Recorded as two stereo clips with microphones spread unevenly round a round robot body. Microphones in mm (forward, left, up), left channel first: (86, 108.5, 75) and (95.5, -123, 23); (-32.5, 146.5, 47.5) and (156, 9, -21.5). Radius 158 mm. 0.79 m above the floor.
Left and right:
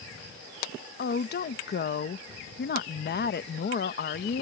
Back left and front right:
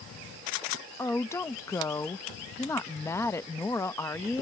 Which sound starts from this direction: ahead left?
A woman speaking, at 1.0 s.